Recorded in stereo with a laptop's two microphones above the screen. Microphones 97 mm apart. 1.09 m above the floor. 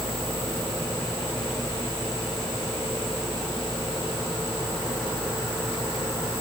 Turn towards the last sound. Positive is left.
No sound to turn to.